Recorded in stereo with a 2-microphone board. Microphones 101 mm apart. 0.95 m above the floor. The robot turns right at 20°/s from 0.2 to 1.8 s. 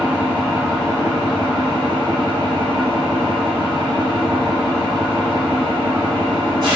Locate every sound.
0.0 s an engine running: 155° right, 1.1 m; by 6.8 s 125° right, 1.1 m